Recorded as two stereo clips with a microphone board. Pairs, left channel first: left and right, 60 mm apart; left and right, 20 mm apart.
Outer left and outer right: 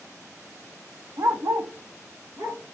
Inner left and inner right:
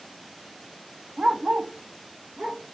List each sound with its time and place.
1.2 s a dog barking: 65° right (ahead or behind), 0.7 m